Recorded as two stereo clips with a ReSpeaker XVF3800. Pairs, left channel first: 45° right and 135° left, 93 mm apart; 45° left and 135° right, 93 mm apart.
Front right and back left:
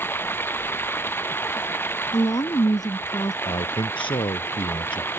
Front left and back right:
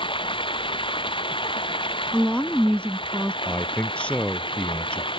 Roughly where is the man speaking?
Ahead right.